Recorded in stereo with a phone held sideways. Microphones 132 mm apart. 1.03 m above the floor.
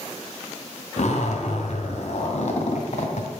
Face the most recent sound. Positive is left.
turn(degrees=65)  # may be behind; listen again after turning